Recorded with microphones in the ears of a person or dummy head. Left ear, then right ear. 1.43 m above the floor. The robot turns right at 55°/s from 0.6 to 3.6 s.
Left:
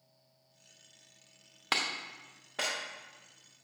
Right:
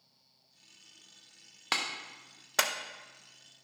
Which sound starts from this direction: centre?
A clap, at 1.7 s.